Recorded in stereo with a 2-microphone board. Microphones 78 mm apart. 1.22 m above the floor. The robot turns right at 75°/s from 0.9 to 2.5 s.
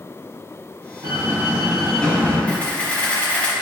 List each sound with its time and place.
1.0 s a door slam: 60° right, 2 m; by 2.4 s 40° left, 2 m
2.5 s a camera shutter: 15° left (ahead or behind), 1.7 m